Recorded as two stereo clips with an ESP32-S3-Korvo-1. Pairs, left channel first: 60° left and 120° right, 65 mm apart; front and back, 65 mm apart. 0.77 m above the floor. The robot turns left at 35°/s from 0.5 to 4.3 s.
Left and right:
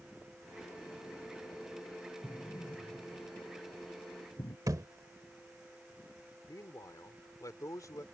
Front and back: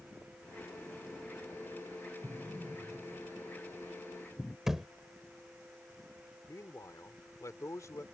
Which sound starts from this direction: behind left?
An explosion, at 2.2 s.